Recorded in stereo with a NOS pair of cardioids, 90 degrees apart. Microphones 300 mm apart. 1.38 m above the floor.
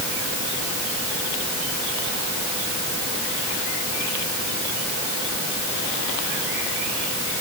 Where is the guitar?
I don't hear a guitar.